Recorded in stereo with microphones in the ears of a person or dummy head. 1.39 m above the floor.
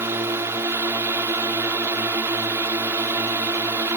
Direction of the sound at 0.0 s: 10° right (ahead or behind).